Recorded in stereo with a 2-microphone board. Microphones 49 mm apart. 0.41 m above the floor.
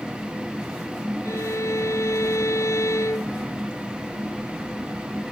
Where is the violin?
85° left.